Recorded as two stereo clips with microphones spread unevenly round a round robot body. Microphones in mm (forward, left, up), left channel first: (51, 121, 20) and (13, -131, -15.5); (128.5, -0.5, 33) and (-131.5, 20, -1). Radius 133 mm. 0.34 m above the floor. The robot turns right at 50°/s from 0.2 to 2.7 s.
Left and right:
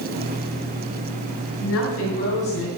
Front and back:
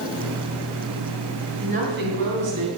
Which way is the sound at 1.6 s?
110° left.